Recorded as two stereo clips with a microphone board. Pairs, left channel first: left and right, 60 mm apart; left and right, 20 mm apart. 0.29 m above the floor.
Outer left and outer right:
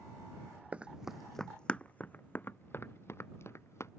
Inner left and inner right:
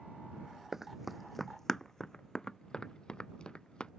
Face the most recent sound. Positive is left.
turn(degrees=50)  # may be behind; listen again after turning